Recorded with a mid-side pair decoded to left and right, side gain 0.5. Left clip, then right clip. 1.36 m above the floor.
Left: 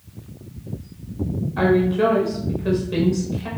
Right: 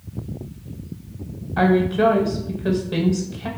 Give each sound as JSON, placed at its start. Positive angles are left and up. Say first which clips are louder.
{"t": 1.6, "sound": "a woman speaking", "louder": "even", "azimuth_deg": -35, "distance_m": 0.6}